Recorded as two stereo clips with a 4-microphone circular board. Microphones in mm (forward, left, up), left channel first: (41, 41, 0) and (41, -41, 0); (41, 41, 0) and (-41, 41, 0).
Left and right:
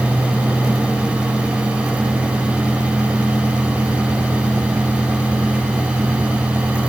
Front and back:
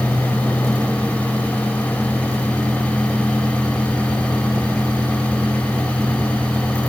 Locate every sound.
Only background noise.